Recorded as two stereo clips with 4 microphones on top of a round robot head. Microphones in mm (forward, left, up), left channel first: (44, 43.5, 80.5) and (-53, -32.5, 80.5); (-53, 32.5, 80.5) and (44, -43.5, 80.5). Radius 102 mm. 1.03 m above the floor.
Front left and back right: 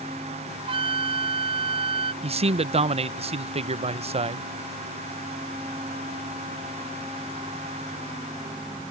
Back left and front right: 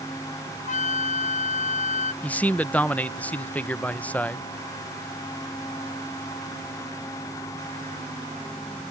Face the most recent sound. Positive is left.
turn(degrees=-145)